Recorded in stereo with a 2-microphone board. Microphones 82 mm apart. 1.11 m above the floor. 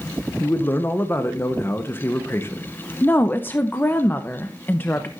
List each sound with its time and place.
0.4 s a man speaking: 30° left (ahead or behind), 0.9 m
3.0 s a woman speaking: 25° left (ahead or behind), 0.7 m